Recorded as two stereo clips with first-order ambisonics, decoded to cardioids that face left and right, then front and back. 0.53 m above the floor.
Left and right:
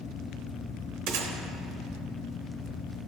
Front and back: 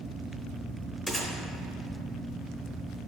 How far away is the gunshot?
About 0.9 m.